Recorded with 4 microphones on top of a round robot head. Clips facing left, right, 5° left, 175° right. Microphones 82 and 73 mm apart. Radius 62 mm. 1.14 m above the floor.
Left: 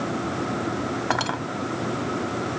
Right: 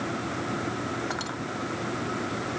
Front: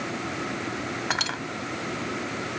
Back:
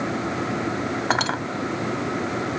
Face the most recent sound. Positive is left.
turn(degrees=140)